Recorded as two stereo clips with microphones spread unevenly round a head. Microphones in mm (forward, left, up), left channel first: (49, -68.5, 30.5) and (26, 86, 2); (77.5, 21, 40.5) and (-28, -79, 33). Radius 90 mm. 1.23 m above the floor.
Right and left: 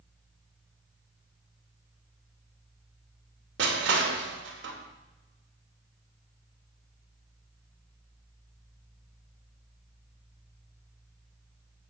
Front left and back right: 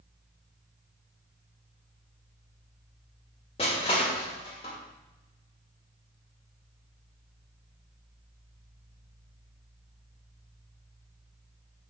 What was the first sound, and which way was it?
Crushing, 100° left.